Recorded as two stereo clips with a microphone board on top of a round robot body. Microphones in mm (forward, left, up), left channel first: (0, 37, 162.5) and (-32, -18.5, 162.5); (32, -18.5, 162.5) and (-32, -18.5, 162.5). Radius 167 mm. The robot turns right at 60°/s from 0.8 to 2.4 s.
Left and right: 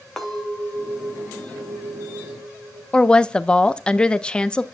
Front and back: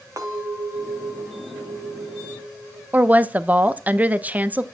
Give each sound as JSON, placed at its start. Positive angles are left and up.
{"t": 0.2, "sound": "a clink", "azimuth_deg": 145, "distance_m": 2.5}
{"t": 2.9, "sound": "a woman speaking", "azimuth_deg": 130, "distance_m": 0.9}